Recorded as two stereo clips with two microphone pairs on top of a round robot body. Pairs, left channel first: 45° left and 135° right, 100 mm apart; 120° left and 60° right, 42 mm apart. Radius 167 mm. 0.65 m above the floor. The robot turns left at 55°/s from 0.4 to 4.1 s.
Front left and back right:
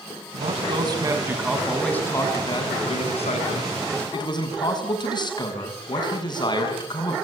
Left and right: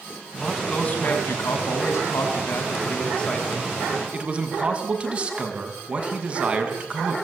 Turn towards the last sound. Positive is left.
turn(degrees=0)